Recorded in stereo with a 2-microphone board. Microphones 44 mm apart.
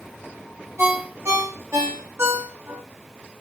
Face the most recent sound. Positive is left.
turn(degrees=-75)  # may be behind; listen again after turning